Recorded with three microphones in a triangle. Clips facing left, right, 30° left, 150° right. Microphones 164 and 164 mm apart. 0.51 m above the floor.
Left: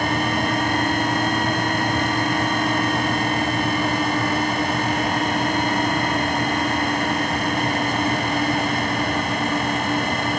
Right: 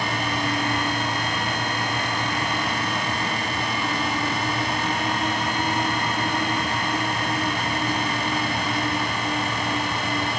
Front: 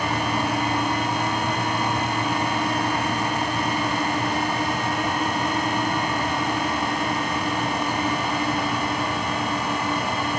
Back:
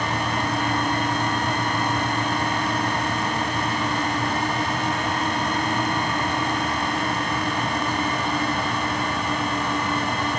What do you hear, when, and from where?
Only background noise.